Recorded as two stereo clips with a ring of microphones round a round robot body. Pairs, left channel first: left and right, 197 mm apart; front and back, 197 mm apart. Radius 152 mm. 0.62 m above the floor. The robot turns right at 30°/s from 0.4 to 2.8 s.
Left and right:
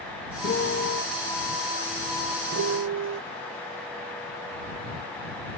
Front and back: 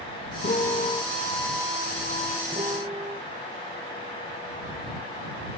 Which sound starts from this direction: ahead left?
A piano, at 0.4 s.